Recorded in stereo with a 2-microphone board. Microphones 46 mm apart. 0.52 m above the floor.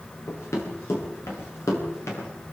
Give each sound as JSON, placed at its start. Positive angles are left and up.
{"t": 0.3, "sound": "running footsteps", "side_deg": 85, "distance_m": 8.5}